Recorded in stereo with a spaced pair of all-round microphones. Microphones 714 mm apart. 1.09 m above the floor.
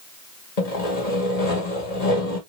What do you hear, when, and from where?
0.6 s sawing: 60° left (ahead or behind), 1.7 m